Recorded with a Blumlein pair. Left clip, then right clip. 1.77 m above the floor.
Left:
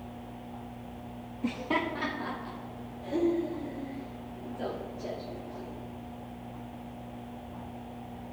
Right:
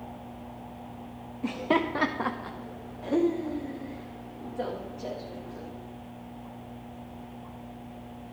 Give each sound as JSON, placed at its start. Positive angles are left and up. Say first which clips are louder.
{"t": 1.4, "sound": "laughter", "louder": "right 4 dB", "azimuth_deg": -5, "distance_m": 0.6}